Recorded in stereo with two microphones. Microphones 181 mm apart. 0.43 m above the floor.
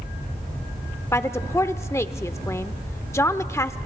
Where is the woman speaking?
15° left (ahead or behind), 0.8 m.